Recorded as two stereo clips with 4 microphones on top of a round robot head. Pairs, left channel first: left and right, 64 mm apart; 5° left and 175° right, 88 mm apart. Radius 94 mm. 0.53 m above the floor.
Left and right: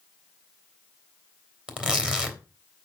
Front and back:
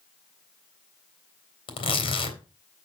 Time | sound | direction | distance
1.7 | tearing paper | 15° right | 3 m